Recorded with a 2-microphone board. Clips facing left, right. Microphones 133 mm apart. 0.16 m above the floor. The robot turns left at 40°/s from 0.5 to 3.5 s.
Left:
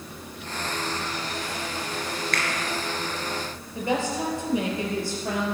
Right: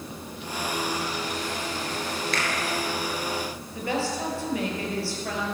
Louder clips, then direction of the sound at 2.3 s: Even; 55° left (ahead or behind).